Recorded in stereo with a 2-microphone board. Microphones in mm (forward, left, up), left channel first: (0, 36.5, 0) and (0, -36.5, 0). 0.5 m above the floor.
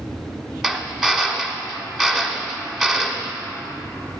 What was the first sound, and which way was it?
A drill, 5° right (ahead or behind).